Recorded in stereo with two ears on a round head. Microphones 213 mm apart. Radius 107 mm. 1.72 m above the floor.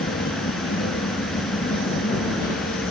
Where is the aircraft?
40° left (ahead or behind).